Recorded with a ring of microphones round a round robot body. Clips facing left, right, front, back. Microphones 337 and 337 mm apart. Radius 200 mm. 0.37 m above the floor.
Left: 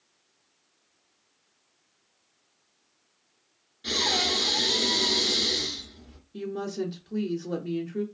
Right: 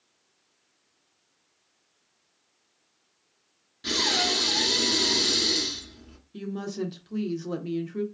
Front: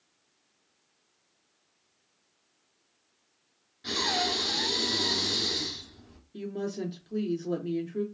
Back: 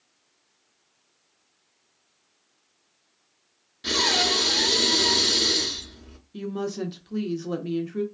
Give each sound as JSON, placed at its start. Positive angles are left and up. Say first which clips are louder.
{"t": 3.8, "sound": "breathing", "louder": "right 1 dB, back 5 dB", "azimuth_deg": -140, "distance_m": 1.1}
{"t": 6.3, "sound": "a woman speaking", "louder": "left 1 dB, back 4 dB", "azimuth_deg": -140, "distance_m": 0.8}